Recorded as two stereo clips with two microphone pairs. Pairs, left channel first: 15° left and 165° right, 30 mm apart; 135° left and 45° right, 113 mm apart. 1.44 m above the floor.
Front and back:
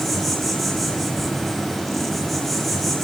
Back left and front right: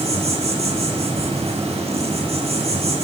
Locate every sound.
0.0 s an insect: 70° right, 8 m